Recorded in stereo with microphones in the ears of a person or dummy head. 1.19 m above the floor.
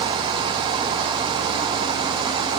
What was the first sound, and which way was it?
Only background noise.